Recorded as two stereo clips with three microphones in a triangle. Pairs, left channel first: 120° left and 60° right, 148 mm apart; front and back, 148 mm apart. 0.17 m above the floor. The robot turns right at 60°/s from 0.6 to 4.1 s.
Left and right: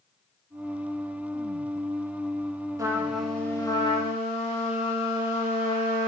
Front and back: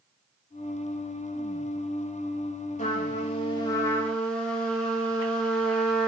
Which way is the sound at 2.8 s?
5° left.